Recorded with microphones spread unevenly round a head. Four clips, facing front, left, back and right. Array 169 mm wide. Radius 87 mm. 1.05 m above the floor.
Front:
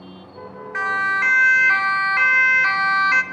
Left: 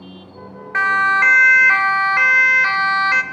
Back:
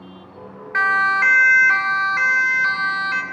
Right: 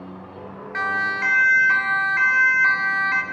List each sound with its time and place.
0.7 s a siren: 120° left, 3 m; by 3.2 s 75° left, 3 m